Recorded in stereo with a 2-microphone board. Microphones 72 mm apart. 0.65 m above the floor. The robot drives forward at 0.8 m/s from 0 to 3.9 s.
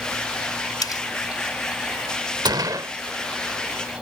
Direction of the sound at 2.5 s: 70° right (ahead or behind).